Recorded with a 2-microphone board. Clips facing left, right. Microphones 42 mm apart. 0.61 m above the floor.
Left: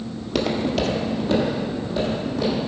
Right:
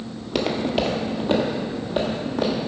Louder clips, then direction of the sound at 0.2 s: Left 1 dB; centre (ahead or behind).